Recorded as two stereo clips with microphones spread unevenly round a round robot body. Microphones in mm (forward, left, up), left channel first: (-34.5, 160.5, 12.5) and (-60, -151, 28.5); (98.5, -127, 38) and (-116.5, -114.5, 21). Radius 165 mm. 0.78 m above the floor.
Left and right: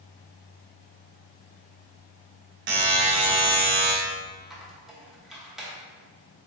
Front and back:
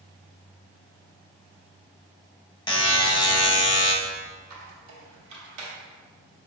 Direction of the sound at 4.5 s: 175° left.